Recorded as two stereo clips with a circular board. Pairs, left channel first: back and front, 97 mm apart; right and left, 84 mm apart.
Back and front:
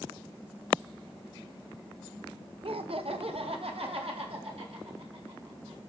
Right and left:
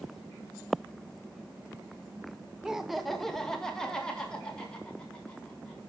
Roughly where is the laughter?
Ahead.